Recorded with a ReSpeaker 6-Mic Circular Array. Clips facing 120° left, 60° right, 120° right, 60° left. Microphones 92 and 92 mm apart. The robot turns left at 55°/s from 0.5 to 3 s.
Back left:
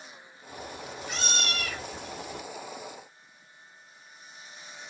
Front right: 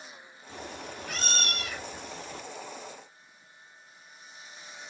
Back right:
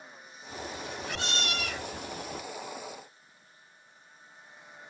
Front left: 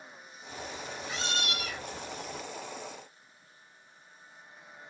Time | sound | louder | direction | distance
0.5 | a cat meowing | back left 1 dB, back right 2 dB | 65° right | 3.5 m